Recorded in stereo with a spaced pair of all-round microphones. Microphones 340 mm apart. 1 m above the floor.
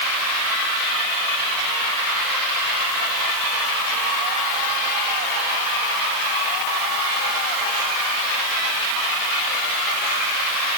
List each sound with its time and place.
Only background noise.